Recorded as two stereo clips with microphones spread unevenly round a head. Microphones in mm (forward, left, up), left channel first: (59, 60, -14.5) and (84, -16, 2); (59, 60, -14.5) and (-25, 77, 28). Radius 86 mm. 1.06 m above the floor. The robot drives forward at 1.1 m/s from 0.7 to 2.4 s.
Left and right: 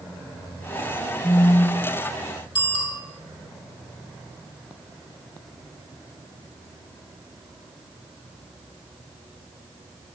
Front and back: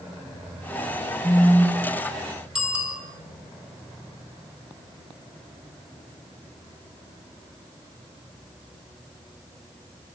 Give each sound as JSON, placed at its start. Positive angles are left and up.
{"t": 1.2, "sound": "a phone buzzing", "azimuth_deg": 70, "distance_m": 9.5}
{"t": 2.5, "sound": "a bicycle bell", "azimuth_deg": 90, "distance_m": 8.0}